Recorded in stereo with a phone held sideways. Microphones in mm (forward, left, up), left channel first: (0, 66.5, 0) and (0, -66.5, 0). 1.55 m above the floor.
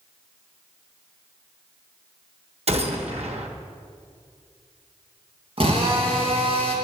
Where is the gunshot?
55° right (ahead or behind), 1.2 m.